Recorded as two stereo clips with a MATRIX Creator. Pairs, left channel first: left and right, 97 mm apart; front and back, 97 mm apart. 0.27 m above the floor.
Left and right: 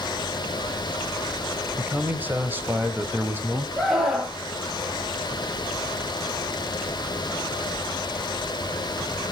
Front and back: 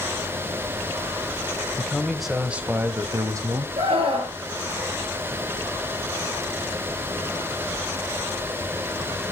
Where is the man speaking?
45° right, 1.2 m; by 3.7 s 155° right, 1.6 m.